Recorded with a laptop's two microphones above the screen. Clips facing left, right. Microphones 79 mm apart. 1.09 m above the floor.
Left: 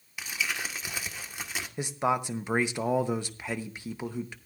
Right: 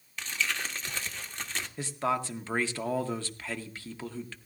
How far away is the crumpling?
About 1.3 m.